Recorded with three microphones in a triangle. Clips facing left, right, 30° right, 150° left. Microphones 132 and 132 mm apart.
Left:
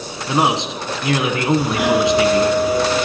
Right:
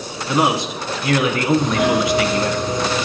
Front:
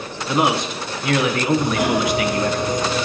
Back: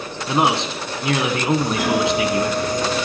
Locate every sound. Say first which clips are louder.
0.3 s a man speaking: even, even; 120° left, 1.2 m
1.6 s a doorbell: left 1 dB, even; 15° left, 2 m